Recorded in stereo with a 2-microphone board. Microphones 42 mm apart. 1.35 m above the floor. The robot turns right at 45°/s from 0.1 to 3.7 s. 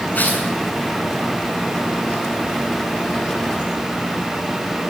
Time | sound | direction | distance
0.1 | tearing paper | 40° left (ahead or behind) | 7.5 m